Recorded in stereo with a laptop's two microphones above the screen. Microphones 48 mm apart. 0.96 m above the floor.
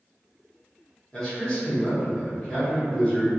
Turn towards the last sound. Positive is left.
turn(degrees=15)  # may be behind; listen again after turning